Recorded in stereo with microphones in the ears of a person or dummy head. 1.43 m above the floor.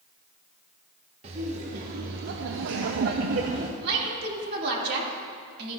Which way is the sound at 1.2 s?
30° right (ahead or behind).